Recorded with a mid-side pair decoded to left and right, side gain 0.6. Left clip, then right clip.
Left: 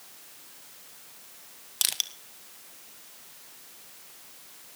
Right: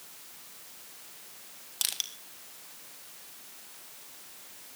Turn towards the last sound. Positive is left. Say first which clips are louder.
# left 4 dB
turn(degrees=25)